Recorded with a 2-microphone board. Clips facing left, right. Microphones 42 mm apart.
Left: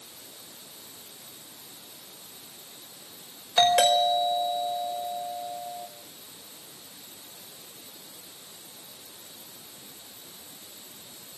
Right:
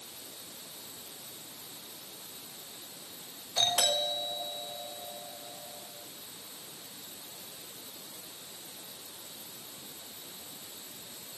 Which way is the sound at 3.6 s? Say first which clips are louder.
Left 10 dB; 60° left (ahead or behind).